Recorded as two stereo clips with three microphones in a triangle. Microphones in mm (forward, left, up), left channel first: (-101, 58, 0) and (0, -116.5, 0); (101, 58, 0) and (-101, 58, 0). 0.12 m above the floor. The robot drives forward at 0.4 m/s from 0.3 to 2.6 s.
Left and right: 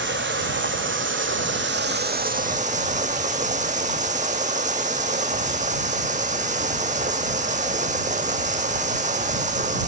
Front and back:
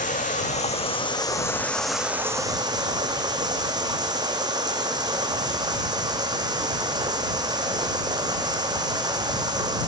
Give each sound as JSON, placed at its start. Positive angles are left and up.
{"t": 0.0, "sound": "running water", "azimuth_deg": -45, "distance_m": 0.9}